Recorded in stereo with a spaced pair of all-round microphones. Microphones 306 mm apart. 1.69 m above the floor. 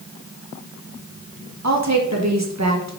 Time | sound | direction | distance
1.6 | a woman speaking | 60° right (ahead or behind) | 1.6 m